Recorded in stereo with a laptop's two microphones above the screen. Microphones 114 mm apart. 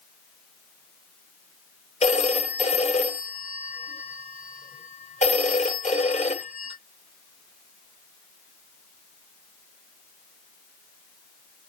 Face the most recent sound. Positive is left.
turn(degrees=70)  # may be behind; listen again after turning